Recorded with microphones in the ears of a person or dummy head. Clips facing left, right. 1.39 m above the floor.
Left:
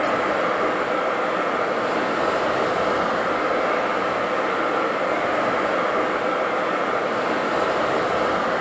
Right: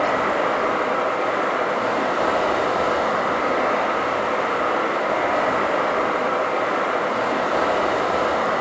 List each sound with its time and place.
0.0 s running water: 15° left (ahead or behind), 0.8 m